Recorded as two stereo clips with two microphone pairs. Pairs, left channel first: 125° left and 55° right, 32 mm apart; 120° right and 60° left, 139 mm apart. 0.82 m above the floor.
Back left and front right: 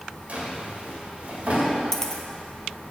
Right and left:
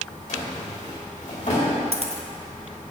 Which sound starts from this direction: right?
A drawer, at 0.3 s.